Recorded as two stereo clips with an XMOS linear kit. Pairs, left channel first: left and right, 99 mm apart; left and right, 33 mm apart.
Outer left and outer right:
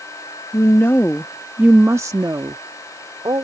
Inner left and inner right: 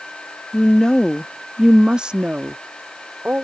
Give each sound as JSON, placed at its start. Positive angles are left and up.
{"t": 0.5, "sound": "a woman speaking", "side_deg": 30}